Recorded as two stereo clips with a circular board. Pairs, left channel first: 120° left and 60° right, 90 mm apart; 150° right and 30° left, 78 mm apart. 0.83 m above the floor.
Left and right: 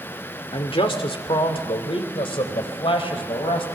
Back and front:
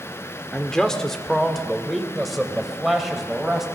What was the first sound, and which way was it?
A man speaking, 130° left.